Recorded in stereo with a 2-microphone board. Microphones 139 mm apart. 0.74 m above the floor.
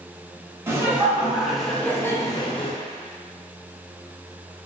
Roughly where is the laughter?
Centre.